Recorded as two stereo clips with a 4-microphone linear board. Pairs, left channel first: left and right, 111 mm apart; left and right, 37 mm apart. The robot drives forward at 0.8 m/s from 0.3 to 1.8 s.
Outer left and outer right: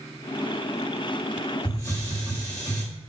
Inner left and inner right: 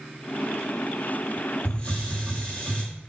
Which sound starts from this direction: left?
A hiss, at 1.6 s.